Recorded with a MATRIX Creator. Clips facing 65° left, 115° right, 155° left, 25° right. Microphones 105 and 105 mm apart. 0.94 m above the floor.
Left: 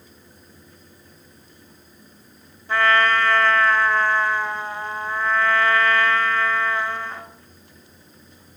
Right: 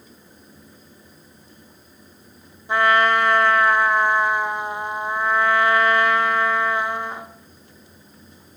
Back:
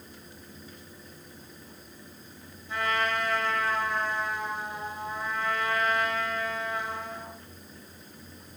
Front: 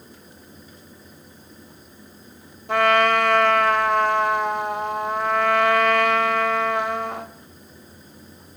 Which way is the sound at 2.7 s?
40° right.